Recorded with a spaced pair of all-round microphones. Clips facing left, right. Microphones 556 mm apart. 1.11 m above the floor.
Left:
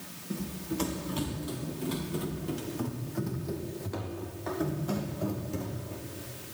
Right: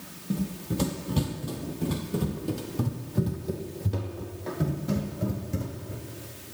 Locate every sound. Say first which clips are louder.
0.3 s running footsteps: right 4 dB; 60° right (ahead or behind), 2.5 m; by 6.0 s 40° right (ahead or behind), 4.5 m